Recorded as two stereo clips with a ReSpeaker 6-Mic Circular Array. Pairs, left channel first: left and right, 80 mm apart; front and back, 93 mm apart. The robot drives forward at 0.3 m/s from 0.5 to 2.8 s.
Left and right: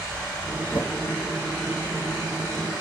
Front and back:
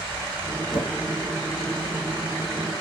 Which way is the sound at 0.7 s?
25° right.